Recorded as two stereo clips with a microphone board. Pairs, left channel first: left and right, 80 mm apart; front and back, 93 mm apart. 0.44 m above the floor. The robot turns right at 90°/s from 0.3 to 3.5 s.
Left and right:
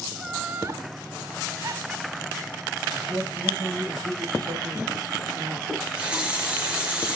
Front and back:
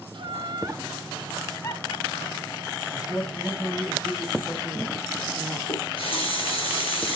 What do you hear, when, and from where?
0.1 s laughter: 175° right, 2.5 m; by 2.8 s 50° left, 2.5 m
2.9 s a man speaking: 110° right, 3 m; by 5.6 s 60° right, 3 m
5.7 s a running tap: 10° right, 4.5 m